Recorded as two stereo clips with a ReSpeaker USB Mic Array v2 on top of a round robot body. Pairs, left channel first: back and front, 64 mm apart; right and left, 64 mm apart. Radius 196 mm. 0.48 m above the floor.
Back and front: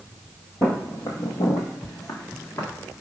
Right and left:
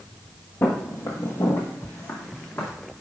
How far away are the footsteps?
About 0.7 m.